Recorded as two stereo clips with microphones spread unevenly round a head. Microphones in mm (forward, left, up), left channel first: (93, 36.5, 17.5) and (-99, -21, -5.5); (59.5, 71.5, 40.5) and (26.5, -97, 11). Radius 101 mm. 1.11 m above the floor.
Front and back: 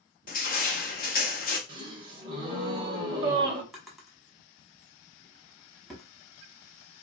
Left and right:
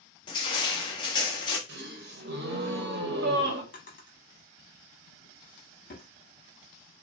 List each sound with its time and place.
0.3 s crushing: 35° left, 0.6 m
1.7 s a gasp: 100° right, 0.7 m
3.7 s a drawer: 100° left, 0.8 m